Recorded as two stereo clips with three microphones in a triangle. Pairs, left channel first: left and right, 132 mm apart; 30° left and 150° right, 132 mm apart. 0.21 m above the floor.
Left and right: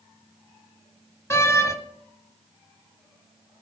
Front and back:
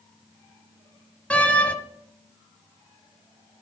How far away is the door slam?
About 0.7 m.